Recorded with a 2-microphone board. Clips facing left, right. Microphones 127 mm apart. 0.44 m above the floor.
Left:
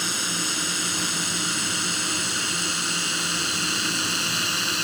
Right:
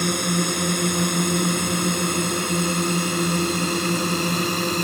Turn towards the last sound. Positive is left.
turn(degrees=-50)  # may be behind; listen again after turning